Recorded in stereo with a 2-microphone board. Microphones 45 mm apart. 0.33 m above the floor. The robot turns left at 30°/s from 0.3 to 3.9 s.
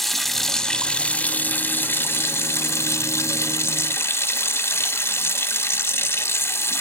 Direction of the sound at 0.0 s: 175° left.